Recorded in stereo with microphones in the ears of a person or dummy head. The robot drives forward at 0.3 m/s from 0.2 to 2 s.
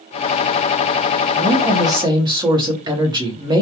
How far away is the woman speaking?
About 0.7 m.